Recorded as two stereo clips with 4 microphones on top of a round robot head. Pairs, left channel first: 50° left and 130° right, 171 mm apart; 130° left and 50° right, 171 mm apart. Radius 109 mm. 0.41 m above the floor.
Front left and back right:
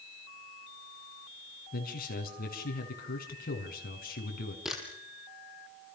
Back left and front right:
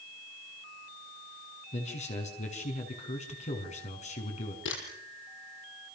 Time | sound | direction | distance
1.7 | a man speaking | 80° left | 6 m
4.7 | a camera shutter | 140° left | 6 m